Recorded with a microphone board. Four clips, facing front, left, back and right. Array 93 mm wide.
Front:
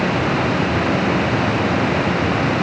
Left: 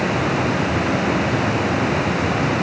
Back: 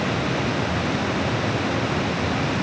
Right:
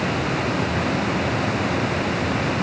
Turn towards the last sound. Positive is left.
No sound to turn to.